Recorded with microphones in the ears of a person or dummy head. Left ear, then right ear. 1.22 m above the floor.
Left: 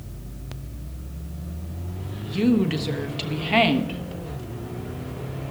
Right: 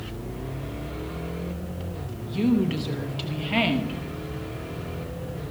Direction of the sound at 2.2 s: 10° left (ahead or behind).